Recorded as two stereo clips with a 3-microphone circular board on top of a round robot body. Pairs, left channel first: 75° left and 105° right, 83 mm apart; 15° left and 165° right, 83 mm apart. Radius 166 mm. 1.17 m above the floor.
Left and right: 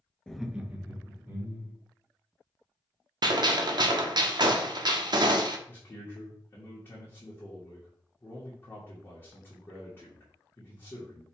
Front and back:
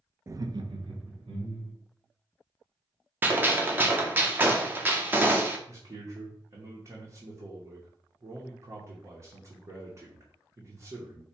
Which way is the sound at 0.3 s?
155° left.